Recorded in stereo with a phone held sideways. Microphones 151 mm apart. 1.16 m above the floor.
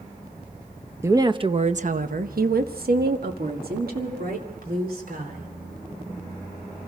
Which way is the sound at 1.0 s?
15° right (ahead or behind).